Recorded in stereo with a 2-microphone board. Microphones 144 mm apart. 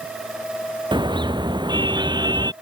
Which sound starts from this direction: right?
A car horn, at 0.9 s.